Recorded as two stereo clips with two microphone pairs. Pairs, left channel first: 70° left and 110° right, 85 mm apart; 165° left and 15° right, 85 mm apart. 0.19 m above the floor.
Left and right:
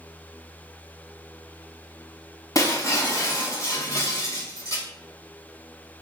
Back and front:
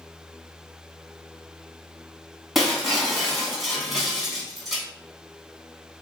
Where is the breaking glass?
70° left, 1.0 m.